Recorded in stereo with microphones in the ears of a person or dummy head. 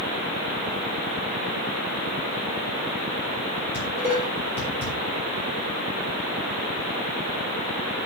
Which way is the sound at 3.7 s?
10° right (ahead or behind).